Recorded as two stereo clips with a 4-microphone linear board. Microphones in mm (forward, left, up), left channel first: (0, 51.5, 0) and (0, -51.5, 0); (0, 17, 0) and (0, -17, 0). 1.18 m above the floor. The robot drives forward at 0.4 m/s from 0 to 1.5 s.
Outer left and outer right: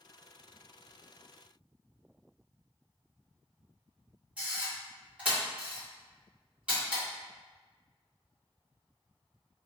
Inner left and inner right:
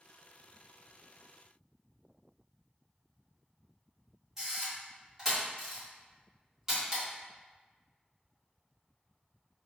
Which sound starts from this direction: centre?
A camera shutter, at 4.4 s.